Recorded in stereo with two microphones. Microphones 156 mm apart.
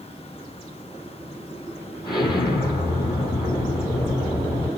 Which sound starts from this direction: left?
An explosion, at 2.0 s.